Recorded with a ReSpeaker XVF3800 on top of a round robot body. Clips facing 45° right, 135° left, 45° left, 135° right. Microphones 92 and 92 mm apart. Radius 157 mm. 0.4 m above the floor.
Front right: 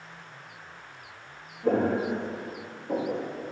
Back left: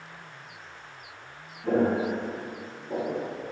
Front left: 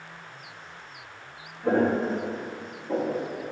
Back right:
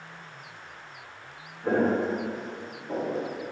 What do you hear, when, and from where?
1.6 s footsteps: 50° right, 5.5 m; by 3.3 s 45° right, 4.5 m